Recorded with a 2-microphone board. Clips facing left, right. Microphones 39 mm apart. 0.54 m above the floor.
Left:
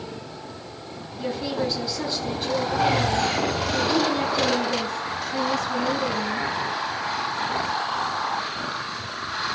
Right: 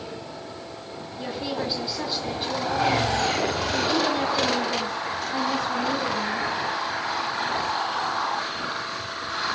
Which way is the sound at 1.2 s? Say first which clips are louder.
Left 3 dB; 10° right (ahead or behind).